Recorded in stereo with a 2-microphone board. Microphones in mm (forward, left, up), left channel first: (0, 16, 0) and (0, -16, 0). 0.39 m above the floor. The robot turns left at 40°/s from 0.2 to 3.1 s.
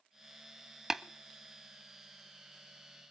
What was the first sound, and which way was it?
Tapping, 15° right (ahead or behind).